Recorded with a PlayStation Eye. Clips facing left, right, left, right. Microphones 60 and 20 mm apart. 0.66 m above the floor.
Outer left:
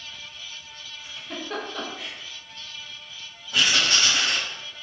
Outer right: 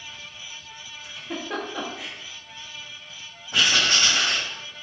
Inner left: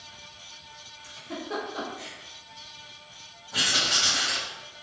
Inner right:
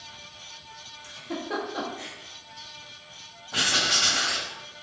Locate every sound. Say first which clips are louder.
1.0 s a giggle: outer right 2 dB, inner right 3 dB; 10° right (ahead or behind), 0.6 m
3.5 s writing: outer right 1 dB, even; 35° right (ahead or behind), 1.4 m